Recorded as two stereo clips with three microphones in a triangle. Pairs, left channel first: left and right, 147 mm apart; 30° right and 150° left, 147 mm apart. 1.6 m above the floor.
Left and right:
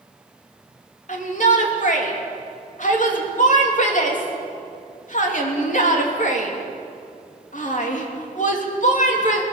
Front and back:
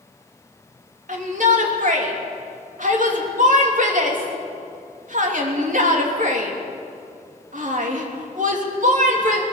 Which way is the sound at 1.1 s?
120° left.